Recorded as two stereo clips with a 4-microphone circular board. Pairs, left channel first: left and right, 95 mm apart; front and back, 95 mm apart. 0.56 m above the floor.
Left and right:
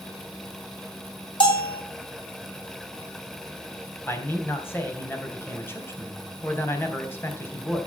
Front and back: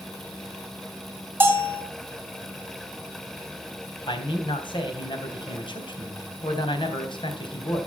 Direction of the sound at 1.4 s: 115° left.